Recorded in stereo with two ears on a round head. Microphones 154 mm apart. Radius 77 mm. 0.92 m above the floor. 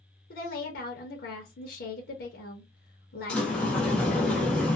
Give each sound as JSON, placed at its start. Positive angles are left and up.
{"t": 0.3, "sound": "a woman speaking", "side_deg": 60, "distance_m": 0.8}
{"t": 3.3, "sound": "a sliding door", "side_deg": 5, "distance_m": 0.8}